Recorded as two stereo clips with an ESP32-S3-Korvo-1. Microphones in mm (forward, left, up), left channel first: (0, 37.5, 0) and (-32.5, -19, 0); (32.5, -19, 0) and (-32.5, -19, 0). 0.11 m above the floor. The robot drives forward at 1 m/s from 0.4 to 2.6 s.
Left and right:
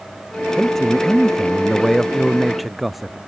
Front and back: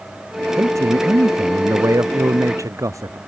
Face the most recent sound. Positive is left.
turn(degrees=150)